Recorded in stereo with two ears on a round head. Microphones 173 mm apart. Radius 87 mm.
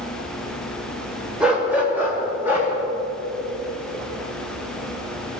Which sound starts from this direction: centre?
A dog barking, at 1.4 s.